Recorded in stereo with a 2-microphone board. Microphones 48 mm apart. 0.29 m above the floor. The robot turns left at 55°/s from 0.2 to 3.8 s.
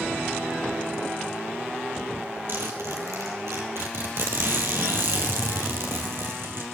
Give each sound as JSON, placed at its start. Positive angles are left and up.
{"t": 2.5, "sound": "a zipper", "azimuth_deg": -50, "distance_m": 3.0}